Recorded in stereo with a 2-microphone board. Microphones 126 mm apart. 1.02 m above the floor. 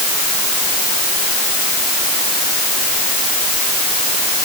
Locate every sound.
Only background noise.